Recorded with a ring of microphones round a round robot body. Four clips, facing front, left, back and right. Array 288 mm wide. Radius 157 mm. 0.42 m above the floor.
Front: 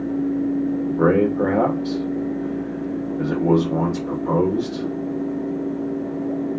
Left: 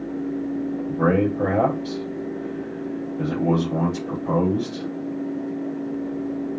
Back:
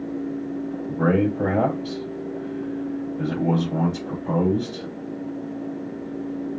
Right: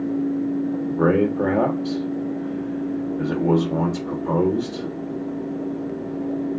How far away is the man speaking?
About 1.8 m.